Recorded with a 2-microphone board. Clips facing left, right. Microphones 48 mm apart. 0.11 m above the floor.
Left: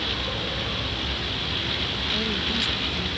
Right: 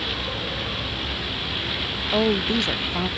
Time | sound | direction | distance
0.0 | a vehicle | 5° right (ahead or behind) | ?
2.1 | a woman speaking | 50° right (ahead or behind) | ?